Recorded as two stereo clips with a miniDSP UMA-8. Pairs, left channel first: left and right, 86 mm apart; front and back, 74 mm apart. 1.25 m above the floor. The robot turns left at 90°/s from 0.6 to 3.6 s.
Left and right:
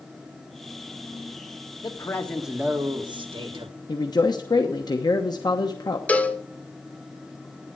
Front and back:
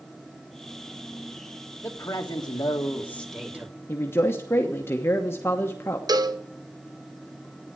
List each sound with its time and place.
1.8 s a man speaking: 50° left, 1.9 m; by 3.8 s 110° right, 1.9 m
3.9 s a man speaking: 55° left, 1.0 m
6.1 s a cowbell: 160° left, 0.8 m